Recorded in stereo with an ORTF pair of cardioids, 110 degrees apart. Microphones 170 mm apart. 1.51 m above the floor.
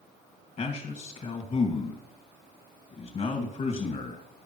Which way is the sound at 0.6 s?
40° left.